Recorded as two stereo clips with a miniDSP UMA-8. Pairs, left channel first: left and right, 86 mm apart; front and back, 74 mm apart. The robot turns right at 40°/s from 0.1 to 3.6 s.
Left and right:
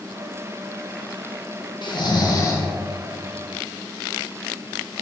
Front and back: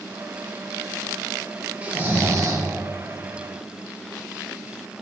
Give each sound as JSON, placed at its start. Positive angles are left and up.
{"t": 1.8, "sound": "snoring", "azimuth_deg": 110, "distance_m": 1.1}